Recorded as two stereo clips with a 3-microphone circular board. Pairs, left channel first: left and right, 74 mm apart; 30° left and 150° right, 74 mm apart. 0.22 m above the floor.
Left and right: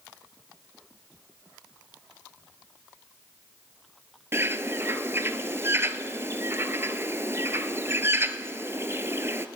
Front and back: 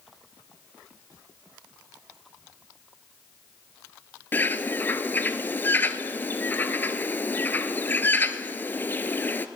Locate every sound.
4.3 s a bird: 35° right, 0.5 m